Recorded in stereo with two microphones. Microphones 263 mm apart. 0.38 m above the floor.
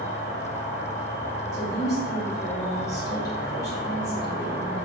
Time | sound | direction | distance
0.0 | an insect | 35° left (ahead or behind) | 0.8 m
1.5 | a woman speaking | 10° left (ahead or behind) | 1.2 m